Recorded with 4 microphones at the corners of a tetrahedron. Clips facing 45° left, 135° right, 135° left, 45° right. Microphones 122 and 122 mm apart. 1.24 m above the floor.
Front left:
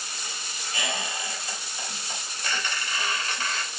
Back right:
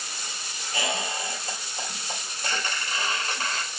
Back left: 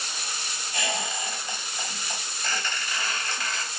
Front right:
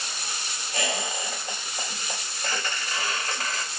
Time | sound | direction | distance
0.7 | a squeak | 85° right | 1.9 m